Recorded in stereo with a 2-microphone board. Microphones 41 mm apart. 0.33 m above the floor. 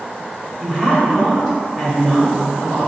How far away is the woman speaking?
About 1.6 m.